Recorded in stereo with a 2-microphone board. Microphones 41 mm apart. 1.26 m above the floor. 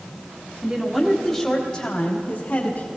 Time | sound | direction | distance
0.6 | a woman speaking | 20° right (ahead or behind) | 2.5 m